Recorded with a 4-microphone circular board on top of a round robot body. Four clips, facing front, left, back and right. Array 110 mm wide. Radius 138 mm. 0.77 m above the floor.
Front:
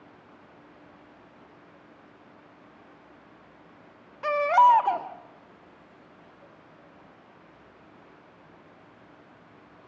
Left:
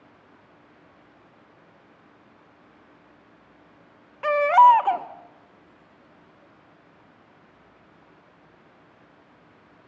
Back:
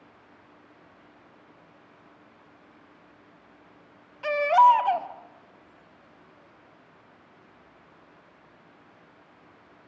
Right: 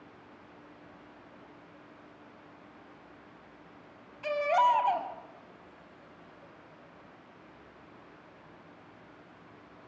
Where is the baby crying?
60° left, 1.1 m.